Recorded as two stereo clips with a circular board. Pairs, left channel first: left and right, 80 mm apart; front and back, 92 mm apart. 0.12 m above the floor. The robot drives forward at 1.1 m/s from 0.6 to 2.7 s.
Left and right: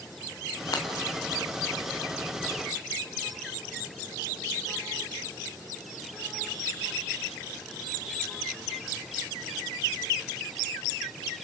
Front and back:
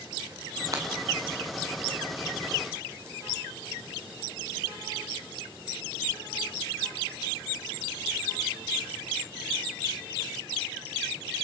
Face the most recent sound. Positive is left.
turn(degrees=145)